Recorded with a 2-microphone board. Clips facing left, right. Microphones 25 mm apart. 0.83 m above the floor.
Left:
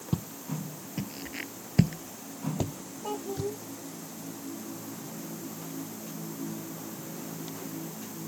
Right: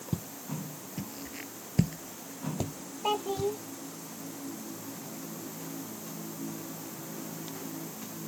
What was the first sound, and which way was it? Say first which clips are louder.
Footsteps: left 3 dB; 20° left (ahead or behind).